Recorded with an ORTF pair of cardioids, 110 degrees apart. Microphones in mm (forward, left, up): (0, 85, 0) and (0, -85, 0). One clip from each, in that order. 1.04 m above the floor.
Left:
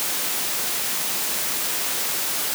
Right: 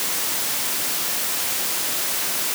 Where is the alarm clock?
I don't hear an alarm clock.